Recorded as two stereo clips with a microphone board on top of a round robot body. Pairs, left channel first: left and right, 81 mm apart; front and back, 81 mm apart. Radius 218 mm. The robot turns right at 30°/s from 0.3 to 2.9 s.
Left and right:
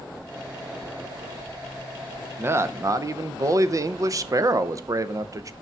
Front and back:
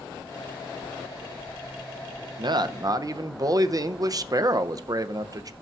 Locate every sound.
2.4 s a man speaking: 155° right, 0.8 m; by 5.5 s 140° right, 0.8 m